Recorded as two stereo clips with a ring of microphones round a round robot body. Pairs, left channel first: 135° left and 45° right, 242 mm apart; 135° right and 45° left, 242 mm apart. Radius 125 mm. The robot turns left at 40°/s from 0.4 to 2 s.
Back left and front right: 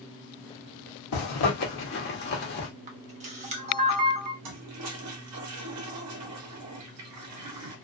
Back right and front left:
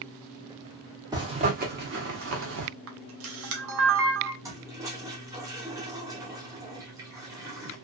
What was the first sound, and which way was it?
A zipper, 120° left.